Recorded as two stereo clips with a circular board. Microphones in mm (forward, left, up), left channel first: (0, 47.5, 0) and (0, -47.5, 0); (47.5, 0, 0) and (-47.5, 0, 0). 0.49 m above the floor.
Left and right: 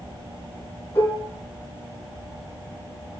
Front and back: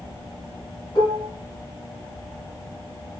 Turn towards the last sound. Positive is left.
turn(degrees=35)